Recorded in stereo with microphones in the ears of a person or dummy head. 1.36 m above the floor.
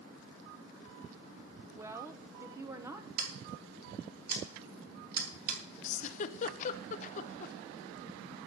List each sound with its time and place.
1.8 s a woman speaking: 10° right (ahead or behind), 1.0 m
3.2 s scissors: 65° right (ahead or behind), 3.5 m
5.8 s a giggle: 35° left (ahead or behind), 0.6 m